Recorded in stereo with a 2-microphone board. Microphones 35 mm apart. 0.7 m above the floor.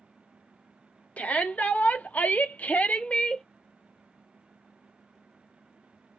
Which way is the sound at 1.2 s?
50° left (ahead or behind).